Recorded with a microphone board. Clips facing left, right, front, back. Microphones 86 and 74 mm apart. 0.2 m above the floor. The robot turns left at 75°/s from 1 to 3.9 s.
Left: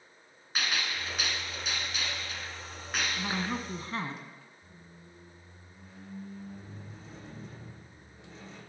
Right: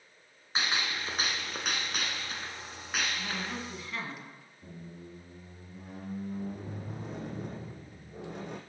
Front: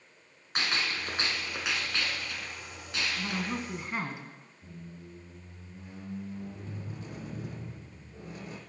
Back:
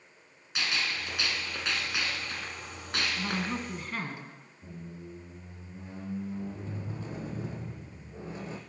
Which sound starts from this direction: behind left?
A woman speaking, at 3.2 s.